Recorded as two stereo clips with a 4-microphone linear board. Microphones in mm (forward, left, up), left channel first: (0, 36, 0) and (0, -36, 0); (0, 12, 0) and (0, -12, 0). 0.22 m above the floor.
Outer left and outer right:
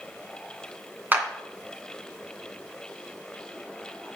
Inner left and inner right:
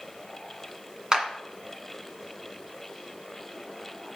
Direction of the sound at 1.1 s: 25° right (ahead or behind).